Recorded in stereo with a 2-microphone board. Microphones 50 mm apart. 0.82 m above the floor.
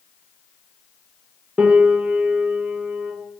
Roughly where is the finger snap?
I don't hear a finger snap.